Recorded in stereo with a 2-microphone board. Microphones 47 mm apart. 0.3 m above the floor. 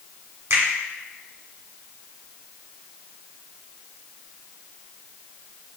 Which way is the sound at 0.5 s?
65° right (ahead or behind).